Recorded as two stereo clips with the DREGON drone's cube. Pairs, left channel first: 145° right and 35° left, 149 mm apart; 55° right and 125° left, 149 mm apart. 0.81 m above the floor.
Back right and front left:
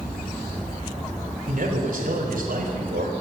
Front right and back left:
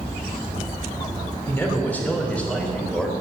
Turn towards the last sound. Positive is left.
turn(degrees=30)